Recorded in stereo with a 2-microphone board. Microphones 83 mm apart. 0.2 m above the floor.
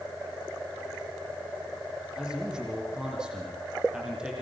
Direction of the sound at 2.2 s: 10° right (ahead or behind).